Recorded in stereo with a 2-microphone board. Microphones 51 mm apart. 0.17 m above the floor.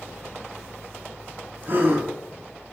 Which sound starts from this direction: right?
A gasp, at 1.6 s.